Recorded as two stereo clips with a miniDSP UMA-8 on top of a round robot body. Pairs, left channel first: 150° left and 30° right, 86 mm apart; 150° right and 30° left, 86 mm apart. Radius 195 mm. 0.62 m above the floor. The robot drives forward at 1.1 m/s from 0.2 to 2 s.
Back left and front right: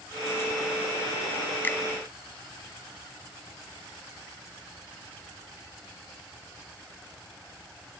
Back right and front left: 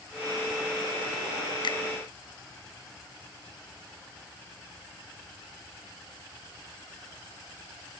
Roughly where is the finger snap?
Behind right.